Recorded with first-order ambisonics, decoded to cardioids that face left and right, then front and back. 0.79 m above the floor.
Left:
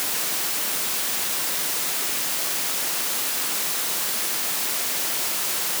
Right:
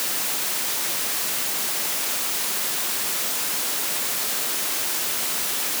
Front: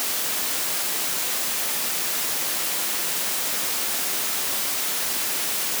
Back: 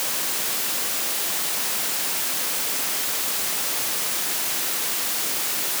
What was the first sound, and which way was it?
Only background noise.